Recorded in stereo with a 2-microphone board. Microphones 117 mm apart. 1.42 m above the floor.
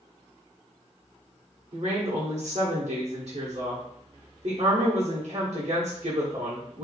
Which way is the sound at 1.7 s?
65° right (ahead or behind).